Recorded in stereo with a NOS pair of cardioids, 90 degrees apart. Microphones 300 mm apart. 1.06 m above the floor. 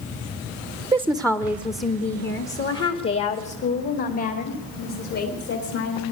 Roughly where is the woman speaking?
Ahead.